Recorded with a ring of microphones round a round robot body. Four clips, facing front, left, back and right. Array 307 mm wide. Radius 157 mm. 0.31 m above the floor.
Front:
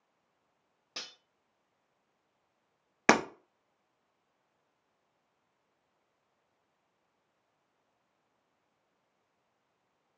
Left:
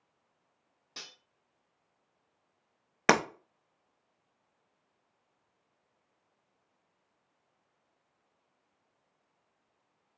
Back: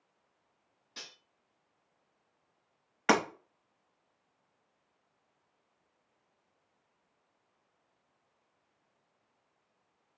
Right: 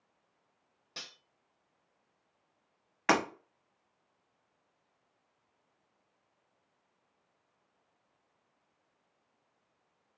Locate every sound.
1.0 s cutlery clinking: 5° right, 0.8 m
3.1 s breaking glass: 40° left, 0.7 m